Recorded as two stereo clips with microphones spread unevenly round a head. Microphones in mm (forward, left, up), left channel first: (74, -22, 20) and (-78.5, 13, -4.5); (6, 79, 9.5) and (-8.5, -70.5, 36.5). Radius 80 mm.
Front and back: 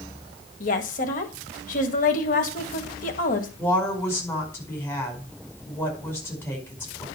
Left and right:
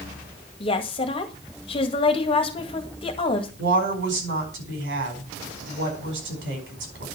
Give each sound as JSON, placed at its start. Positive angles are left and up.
{"t": 0.6, "sound": "a woman speaking", "azimuth_deg": 25, "distance_m": 1.9}
{"t": 3.6, "sound": "a woman speaking", "azimuth_deg": -90, "distance_m": 5.0}